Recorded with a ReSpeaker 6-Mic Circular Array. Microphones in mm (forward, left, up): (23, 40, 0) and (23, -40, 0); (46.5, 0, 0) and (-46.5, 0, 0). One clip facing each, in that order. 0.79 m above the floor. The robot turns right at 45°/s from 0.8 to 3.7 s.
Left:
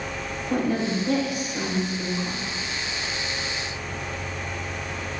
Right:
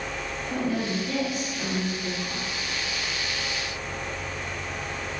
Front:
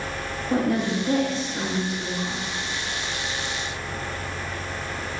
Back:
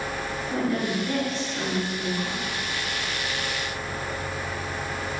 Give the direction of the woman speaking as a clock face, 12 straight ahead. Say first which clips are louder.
Left 4 dB, front 4 dB; 11 o'clock.